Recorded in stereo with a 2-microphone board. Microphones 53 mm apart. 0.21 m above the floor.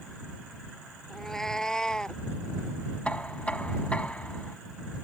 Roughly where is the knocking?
Left.